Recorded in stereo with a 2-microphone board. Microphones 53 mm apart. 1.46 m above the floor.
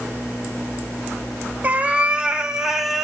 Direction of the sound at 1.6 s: 30° right (ahead or behind).